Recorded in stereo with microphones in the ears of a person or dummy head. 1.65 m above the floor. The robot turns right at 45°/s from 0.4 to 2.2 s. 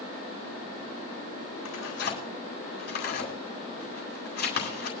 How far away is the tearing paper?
About 3.5 m.